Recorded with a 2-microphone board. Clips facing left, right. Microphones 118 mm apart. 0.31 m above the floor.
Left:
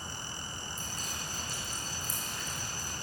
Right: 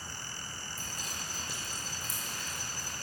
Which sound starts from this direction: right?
Dripping, at 0.8 s.